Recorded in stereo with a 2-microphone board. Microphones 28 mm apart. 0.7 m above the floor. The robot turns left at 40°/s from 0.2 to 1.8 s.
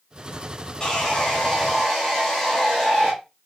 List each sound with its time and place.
0.8 s sawing: 40° left, 1.1 m; by 3.1 s straight ahead, 1.1 m